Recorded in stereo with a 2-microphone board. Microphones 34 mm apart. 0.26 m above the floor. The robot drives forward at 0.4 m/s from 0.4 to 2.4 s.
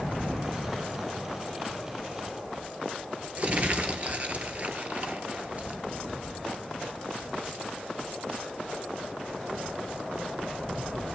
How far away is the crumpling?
About 0.8 m.